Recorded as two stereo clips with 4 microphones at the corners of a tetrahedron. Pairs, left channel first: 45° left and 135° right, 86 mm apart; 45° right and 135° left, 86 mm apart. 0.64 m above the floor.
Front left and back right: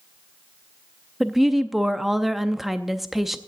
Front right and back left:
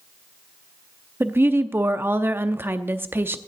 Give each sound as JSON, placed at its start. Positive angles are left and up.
{"t": 1.2, "sound": "a woman speaking", "azimuth_deg": 140, "distance_m": 0.6}